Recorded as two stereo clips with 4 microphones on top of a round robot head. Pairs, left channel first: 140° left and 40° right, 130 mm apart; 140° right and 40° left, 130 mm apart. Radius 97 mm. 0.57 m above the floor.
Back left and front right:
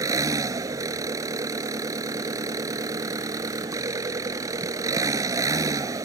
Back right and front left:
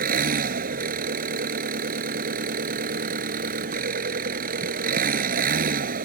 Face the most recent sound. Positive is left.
turn(degrees=25)